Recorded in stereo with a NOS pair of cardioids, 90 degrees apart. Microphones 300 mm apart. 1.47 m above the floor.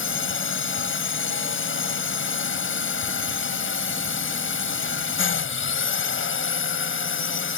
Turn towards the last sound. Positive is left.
turn(degrees=40)